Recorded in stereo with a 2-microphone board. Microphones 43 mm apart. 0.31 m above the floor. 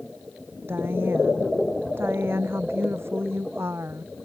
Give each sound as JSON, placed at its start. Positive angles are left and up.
{"t": 0.7, "sound": "a woman speaking", "side_deg": -60}